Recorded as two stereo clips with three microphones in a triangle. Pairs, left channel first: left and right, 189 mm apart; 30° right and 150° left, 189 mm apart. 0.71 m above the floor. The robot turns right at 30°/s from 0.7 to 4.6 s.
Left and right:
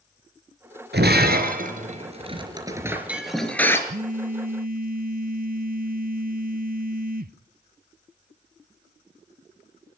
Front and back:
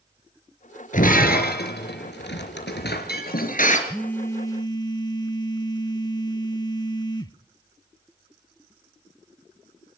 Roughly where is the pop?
No pop in this recording.